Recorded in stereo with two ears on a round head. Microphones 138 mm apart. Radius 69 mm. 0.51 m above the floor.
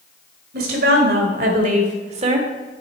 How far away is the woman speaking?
About 2 m.